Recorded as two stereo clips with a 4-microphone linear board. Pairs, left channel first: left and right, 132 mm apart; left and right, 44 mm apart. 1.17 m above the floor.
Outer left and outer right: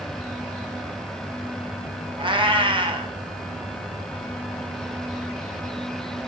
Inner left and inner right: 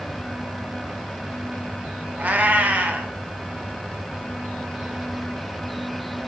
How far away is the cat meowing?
About 1.0 m.